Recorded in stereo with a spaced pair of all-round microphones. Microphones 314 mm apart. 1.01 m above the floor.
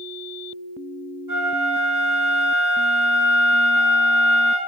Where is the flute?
80° right, 6 m.